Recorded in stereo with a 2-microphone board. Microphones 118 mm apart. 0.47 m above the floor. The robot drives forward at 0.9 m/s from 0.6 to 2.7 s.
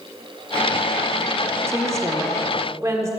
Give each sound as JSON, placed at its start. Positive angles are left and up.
{"t": 1.7, "sound": "a woman speaking", "side_deg": -25, "distance_m": 1.3}